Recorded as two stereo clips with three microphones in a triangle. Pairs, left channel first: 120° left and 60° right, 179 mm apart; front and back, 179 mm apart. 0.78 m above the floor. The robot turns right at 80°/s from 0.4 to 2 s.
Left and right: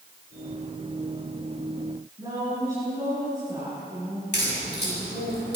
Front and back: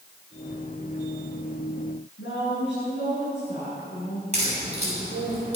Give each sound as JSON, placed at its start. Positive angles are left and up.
{"t": 2.2, "sound": "a woman speaking", "azimuth_deg": 0, "distance_m": 8.0}
{"t": 4.3, "sound": "a crack", "azimuth_deg": 130, "distance_m": 6.5}